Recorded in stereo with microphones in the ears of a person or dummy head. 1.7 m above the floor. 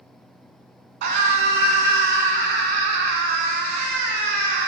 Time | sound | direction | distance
1.0 | a scream | 50° right (ahead or behind) | 1.8 m